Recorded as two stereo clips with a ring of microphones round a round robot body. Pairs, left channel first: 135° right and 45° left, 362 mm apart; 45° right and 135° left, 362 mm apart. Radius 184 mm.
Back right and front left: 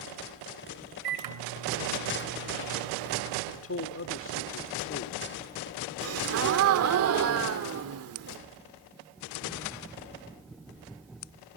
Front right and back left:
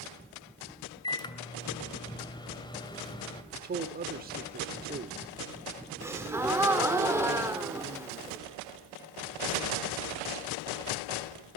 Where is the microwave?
30° left, 1.9 m.